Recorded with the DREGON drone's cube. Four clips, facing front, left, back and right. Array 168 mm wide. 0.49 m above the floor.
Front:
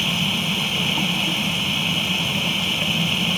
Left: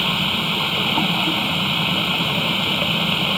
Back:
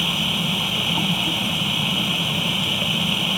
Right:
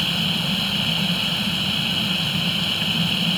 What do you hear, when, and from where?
0.0 s running water: 95° left